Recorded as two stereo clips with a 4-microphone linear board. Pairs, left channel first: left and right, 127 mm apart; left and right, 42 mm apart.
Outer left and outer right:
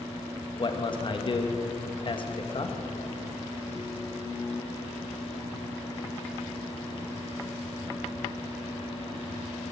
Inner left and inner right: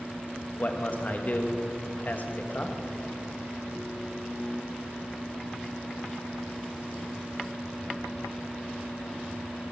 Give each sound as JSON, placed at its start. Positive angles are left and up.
{"t": 0.6, "sound": "a man speaking", "side_deg": 45, "distance_m": 1.2}